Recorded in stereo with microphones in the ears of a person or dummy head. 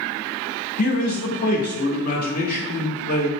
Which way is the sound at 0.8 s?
50° left (ahead or behind).